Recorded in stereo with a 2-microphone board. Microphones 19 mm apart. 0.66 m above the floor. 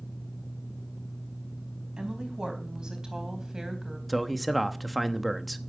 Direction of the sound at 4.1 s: Centre (ahead or behind).